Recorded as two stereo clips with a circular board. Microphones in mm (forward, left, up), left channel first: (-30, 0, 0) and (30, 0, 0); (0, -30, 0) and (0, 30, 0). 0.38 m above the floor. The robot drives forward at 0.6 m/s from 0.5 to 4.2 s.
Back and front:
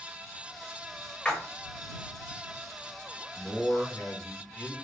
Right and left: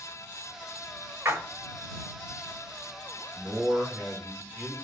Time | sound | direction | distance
1.2 | a splash | 110° left | 1.1 m
3.4 | a man speaking | 125° left | 1.3 m